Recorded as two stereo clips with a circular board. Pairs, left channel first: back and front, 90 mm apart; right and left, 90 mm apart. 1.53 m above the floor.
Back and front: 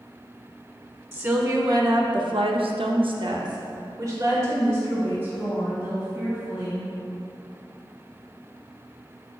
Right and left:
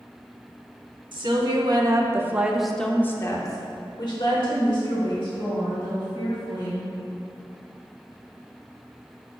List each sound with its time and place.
1.1 s a woman speaking: 60° left, 1.1 m; by 6.9 s 70° right, 2.5 m